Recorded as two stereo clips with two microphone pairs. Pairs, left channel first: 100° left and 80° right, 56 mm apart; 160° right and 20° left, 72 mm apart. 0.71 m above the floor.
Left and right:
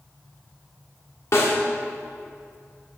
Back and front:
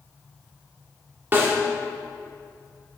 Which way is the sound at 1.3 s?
75° left.